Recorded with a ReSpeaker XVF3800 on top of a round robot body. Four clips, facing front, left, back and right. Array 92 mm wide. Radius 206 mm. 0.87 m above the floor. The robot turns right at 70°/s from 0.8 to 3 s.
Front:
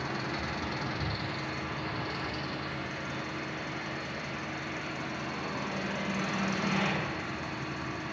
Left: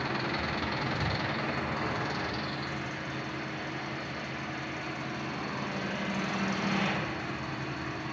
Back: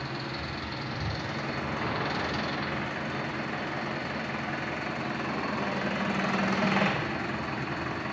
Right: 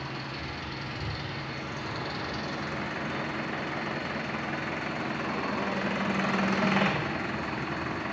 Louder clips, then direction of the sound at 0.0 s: Left 5 dB, front 1 dB; 75° left.